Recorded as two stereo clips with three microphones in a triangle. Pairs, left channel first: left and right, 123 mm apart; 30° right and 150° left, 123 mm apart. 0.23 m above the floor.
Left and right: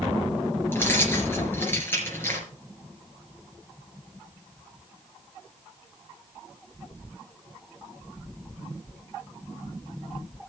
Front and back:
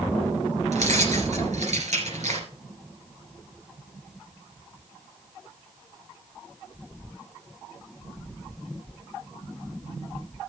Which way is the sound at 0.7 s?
160° left.